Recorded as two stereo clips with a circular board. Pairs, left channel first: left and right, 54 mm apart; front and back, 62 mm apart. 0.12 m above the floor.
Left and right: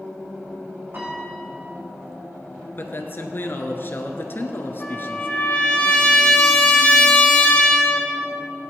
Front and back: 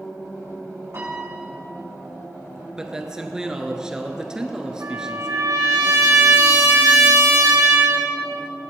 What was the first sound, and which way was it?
A piano, 140° right.